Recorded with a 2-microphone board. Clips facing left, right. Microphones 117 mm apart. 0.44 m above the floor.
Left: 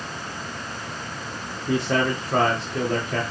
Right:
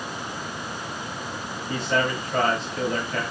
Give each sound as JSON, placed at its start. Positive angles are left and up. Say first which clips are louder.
{"t": 1.7, "sound": "a man speaking", "louder": "left 3 dB", "side_deg": 65, "distance_m": 6.0}